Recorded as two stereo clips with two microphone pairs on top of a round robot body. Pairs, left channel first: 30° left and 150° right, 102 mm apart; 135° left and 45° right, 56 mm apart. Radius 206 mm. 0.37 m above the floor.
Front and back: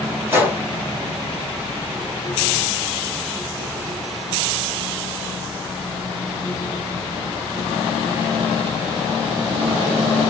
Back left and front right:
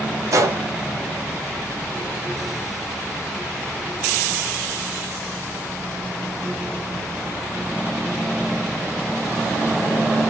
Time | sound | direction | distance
0.3 | a gunshot | 80° right | 2.5 m